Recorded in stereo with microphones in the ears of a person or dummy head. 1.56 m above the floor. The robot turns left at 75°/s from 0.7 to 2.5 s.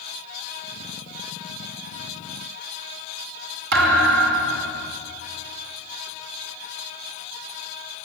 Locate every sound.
3.7 s a thud: 60° right (ahead or behind), 3 m